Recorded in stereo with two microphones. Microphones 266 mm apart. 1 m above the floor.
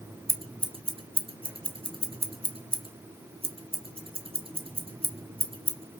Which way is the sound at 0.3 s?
20° right (ahead or behind).